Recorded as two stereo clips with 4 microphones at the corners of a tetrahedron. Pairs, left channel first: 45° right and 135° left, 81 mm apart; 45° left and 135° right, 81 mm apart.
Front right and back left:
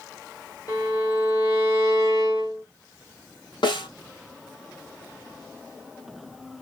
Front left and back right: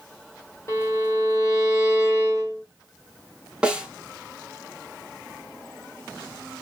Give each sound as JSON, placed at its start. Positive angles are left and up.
{"t": 0.7, "sound": "a violin", "azimuth_deg": -5, "distance_m": 2.0}
{"t": 3.6, "sound": "a snare drum", "azimuth_deg": -55, "distance_m": 1.3}